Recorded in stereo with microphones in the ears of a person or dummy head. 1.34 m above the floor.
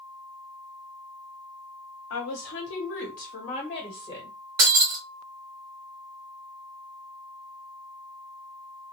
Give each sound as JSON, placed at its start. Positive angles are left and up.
{"t": 2.1, "sound": "a woman speaking", "side_deg": 80, "distance_m": 0.8}
{"t": 4.6, "sound": "breaking glass", "side_deg": -20, "distance_m": 0.8}